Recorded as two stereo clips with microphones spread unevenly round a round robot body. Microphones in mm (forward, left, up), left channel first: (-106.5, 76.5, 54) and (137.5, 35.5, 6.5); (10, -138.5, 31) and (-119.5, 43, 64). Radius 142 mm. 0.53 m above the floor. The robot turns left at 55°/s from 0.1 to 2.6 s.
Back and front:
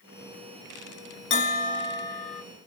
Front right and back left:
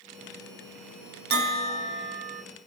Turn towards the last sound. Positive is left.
turn(degrees=60)